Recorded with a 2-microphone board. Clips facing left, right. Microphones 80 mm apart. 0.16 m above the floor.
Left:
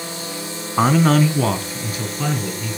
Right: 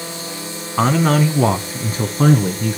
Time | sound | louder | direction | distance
0.8 | a man speaking | even | 5° left (ahead or behind) | 1.3 m